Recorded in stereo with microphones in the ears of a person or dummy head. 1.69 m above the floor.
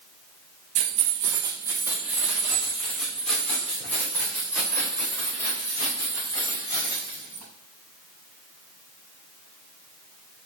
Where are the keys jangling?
50° right (ahead or behind), 1.5 m; by 7.4 s 15° left (ahead or behind), 8 m.